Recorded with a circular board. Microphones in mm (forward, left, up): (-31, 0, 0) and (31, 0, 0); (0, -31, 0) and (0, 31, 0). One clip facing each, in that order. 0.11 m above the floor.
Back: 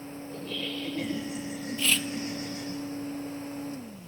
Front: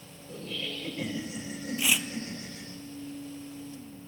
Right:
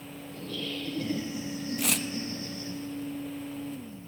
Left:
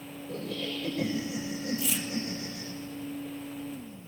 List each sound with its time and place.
0.3 s laughter: 90° left, 8.5 m
1.8 s tearing paper: 75° right, 0.9 m